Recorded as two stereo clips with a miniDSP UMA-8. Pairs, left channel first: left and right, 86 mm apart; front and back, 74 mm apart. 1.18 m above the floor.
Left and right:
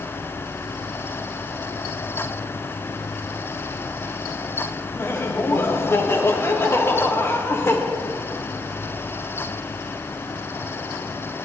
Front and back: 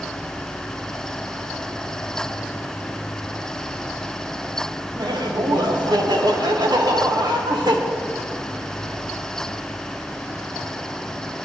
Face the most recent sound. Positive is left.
turn(degrees=155)